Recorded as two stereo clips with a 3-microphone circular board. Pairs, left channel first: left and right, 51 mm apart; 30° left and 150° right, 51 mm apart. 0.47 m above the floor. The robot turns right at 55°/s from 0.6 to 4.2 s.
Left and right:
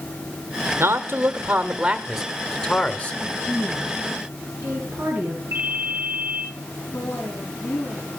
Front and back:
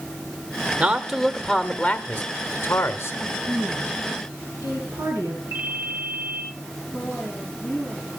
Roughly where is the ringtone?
Behind right.